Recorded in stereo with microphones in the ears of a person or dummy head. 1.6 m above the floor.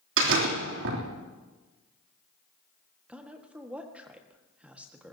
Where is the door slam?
70° right (ahead or behind), 3 m.